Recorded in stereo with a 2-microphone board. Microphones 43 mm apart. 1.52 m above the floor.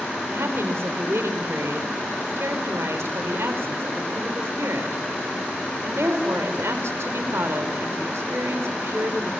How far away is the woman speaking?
About 4.5 m.